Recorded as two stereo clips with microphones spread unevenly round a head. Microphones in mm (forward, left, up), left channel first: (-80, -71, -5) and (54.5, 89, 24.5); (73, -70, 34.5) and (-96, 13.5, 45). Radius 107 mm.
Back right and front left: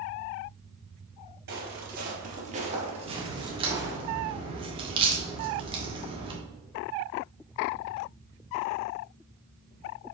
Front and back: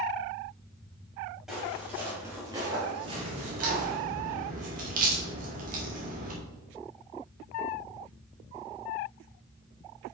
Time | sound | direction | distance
1.5 | footsteps | 70° left | 2.5 m
3.0 | a crack | 105° left | 1.8 m